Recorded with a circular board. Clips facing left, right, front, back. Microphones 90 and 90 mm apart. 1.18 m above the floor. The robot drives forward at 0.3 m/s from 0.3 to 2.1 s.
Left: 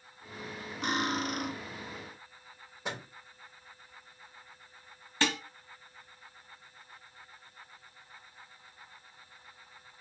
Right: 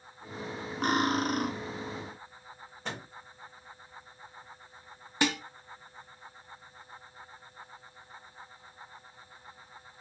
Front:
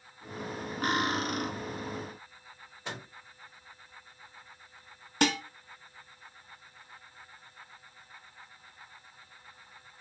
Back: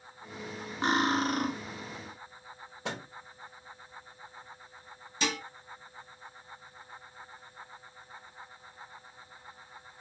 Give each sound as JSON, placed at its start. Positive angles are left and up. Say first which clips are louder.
{"t": 0.8, "sound": "cutlery clinking", "louder": "right 4 dB, back 3 dB", "azimuth_deg": -120, "distance_m": 0.7}
{"t": 2.9, "sound": "a microwave", "louder": "left 1 dB, back 3 dB", "azimuth_deg": 170, "distance_m": 1.0}
{"t": 5.2, "sound": "dishes clattering", "louder": "right 2 dB, front 6 dB", "azimuth_deg": -20, "distance_m": 0.7}